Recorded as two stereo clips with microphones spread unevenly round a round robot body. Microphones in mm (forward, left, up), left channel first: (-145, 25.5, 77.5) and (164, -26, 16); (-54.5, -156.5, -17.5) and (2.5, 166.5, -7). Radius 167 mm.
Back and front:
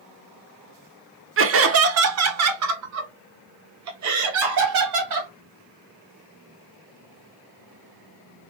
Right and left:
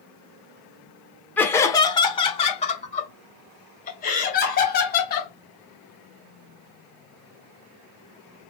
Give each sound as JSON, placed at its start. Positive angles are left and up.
{"t": 1.4, "sound": "laughter", "azimuth_deg": -20, "distance_m": 1.0}